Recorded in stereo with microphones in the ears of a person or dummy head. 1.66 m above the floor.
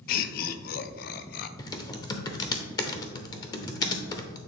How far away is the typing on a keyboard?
About 0.6 m.